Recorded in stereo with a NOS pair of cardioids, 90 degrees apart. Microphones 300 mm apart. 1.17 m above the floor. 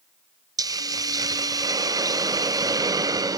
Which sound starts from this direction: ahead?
A hiss, at 0.6 s.